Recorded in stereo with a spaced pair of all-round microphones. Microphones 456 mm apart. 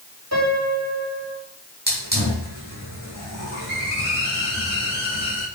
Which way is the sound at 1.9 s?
20° right (ahead or behind).